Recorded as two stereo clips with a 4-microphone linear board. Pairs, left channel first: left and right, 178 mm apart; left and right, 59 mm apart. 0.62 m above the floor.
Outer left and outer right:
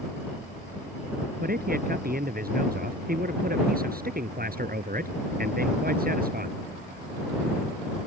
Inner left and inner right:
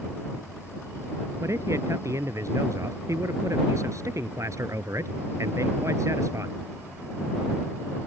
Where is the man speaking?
55° right (ahead or behind).